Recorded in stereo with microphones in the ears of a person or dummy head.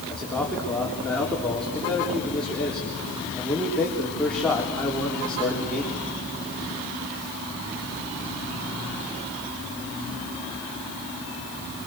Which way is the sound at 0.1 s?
15° left (ahead or behind).